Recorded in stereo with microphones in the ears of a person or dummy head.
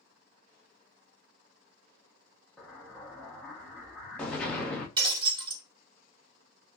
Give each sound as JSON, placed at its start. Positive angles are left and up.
{"t": 2.6, "sound": "an explosion", "side_deg": 0, "distance_m": 0.9}
{"t": 5.0, "sound": "breaking glass", "side_deg": -25, "distance_m": 1.5}